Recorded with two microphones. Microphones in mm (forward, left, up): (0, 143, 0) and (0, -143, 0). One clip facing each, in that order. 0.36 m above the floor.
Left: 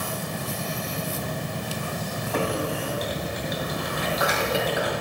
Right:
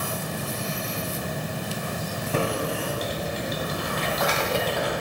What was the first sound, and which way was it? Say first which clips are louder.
Typing on a keyboard: even; 35° right (ahead or behind).